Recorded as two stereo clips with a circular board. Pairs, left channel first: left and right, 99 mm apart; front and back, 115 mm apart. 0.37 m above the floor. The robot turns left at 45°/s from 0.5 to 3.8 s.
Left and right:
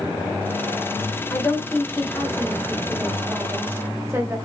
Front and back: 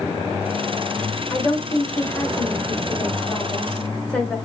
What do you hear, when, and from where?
1.3 s a woman speaking: 40° left, 1.1 m; by 4.4 s 75° right, 1.1 m